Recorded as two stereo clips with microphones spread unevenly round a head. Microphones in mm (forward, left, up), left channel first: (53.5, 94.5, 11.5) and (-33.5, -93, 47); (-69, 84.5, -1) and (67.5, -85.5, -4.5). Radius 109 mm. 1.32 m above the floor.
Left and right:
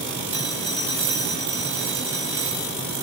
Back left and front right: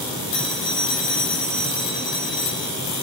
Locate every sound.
0.3 s a phone ringing: 165° left, 5.5 m